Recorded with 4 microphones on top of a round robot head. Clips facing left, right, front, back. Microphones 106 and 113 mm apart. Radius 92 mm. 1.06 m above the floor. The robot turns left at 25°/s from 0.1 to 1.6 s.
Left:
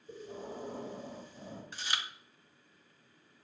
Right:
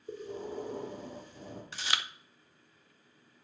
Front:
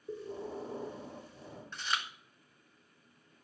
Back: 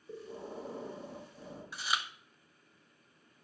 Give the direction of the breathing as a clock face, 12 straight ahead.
2 o'clock.